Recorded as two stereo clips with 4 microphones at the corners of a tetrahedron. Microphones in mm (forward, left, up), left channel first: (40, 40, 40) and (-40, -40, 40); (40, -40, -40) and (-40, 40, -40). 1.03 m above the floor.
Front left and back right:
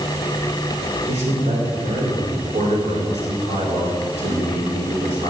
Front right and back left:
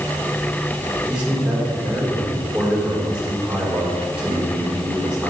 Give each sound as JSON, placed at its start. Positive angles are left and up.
{"t": 1.1, "sound": "a man speaking", "azimuth_deg": -145, "distance_m": 4.0}